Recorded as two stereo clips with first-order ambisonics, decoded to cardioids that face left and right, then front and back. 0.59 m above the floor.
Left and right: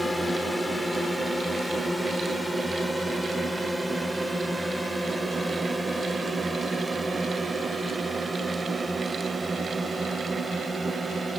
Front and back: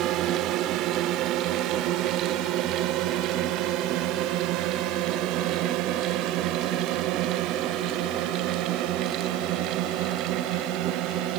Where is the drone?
175° left; by 11.4 s 170° right.